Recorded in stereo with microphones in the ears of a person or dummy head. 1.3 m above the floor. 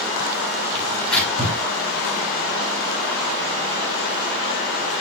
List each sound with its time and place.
0.8 s tearing paper: 5° left (ahead or behind), 9 m